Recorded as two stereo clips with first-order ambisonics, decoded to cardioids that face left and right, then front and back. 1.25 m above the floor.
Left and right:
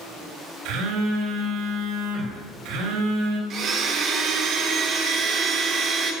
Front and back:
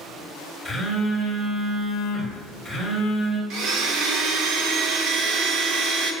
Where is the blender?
140° right, 1.4 m.